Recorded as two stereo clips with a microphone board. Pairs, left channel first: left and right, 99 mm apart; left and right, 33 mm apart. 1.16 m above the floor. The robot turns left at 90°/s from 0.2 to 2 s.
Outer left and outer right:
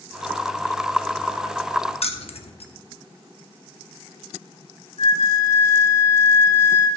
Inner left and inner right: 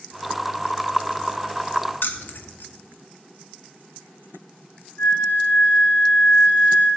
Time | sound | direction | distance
2.0 | keys jangling | 75° left (ahead or behind) | 0.7 m
5.0 | a flute | 85° left | 3 m